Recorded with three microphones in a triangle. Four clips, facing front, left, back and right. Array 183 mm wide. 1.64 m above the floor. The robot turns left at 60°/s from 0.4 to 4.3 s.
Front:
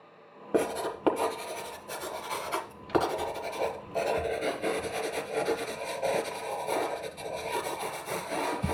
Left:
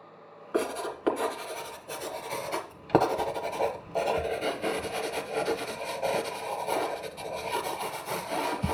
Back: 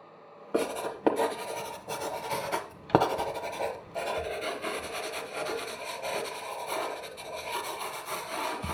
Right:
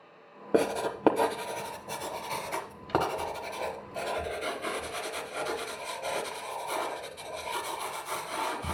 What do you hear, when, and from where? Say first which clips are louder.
0.5 s writing: right 3 dB, front 2 dB; 70° right, 1.0 m; by 8.8 s 65° left, 1.0 m